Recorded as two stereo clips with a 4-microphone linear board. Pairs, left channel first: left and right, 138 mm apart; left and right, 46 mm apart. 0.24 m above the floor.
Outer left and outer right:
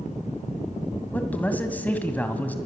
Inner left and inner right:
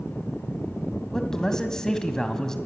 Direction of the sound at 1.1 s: 10° left (ahead or behind).